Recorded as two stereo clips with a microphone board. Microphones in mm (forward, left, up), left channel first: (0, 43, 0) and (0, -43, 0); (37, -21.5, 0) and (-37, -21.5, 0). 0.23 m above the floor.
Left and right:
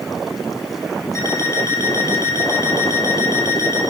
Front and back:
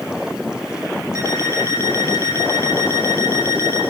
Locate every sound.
1.1 s an alarm clock: 140° left, 3.5 m